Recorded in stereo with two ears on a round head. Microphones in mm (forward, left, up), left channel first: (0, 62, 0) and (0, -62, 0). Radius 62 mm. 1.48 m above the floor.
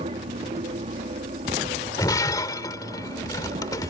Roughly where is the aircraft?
Right.